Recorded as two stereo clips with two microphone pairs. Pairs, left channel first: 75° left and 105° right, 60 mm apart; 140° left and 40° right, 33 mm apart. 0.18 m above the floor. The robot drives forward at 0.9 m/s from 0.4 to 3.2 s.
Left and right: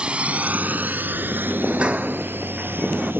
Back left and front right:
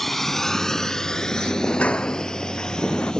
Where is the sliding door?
175° right; by 3.1 s straight behind.